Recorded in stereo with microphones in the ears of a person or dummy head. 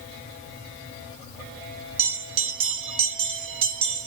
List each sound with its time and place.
2.0 s a bell: 30° right (ahead or behind), 0.8 m